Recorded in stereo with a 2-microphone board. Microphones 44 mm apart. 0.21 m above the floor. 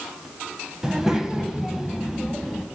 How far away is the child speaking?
About 0.9 m.